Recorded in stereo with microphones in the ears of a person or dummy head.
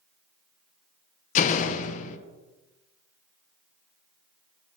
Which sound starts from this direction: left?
A door slam, at 1.4 s.